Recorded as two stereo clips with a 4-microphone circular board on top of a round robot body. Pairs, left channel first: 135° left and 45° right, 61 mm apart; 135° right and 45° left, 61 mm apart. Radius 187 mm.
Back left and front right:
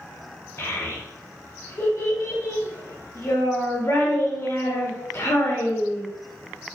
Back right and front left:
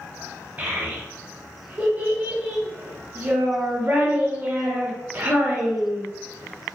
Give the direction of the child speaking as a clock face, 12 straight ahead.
9 o'clock.